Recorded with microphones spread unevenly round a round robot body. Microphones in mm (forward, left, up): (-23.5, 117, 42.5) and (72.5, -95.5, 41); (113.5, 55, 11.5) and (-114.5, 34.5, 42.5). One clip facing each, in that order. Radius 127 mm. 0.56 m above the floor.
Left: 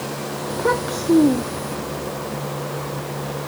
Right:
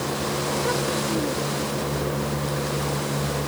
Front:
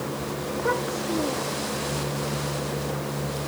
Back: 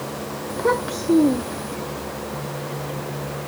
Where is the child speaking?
150° left.